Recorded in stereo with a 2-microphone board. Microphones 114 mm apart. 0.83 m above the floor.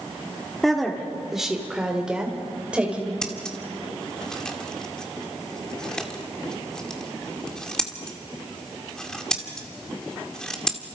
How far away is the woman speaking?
About 2.5 m.